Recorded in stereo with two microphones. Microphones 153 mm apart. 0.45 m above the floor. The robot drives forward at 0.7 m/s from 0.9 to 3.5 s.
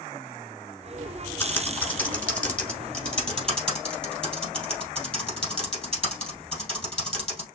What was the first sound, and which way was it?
Typing on a keyboard, 15° left (ahead or behind).